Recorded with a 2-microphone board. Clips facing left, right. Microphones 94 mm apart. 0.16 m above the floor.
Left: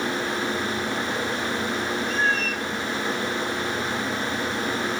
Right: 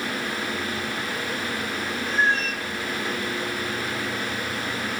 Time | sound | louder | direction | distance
2.1 | a cat meowing | right 4 dB | 60° right (ahead or behind) | 2.5 m